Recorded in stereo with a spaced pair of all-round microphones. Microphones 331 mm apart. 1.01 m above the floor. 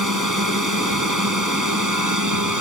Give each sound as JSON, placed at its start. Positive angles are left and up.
{"t": 0.0, "sound": "a drone", "side_deg": -65}